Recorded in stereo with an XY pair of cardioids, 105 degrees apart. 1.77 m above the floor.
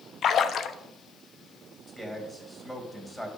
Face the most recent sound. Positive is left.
turn(degrees=5)